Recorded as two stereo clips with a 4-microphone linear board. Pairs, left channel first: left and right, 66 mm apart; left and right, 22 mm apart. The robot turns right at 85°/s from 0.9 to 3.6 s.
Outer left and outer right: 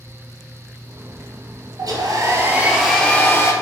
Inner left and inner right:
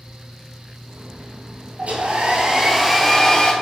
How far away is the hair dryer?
About 0.7 m.